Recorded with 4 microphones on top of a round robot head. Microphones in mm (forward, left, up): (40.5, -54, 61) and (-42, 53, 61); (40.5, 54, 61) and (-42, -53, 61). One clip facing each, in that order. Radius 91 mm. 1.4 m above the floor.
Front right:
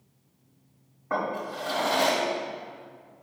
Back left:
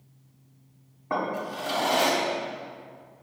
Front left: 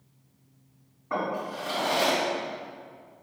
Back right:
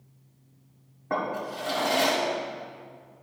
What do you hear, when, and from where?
1.1 s a drawer: 165° right, 1.7 m